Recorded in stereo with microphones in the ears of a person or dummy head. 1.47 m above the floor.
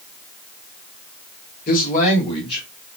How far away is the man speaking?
About 1.3 m.